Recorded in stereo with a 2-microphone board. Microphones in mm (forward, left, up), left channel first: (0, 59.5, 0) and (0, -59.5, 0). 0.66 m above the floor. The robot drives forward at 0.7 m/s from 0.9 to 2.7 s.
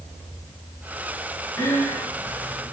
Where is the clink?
I don't hear a clink.